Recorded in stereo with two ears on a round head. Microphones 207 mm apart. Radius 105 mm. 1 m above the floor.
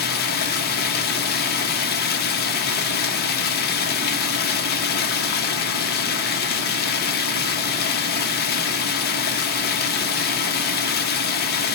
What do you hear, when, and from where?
0.0 s running water: 45° left (ahead or behind), 0.8 m